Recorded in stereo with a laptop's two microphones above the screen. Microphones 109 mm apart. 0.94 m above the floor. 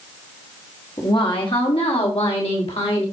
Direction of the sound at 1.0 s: 45° left (ahead or behind).